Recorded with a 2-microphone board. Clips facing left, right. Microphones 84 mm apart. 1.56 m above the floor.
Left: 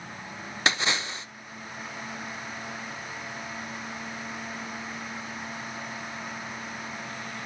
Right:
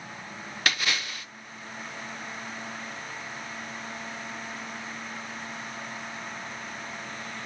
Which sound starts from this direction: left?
A splash, at 0.7 s.